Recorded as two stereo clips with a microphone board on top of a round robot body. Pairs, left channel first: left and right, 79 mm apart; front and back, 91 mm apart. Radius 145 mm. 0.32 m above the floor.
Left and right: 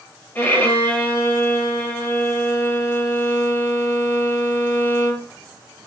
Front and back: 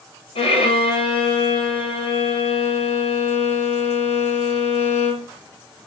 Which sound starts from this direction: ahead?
A violin, at 0.3 s.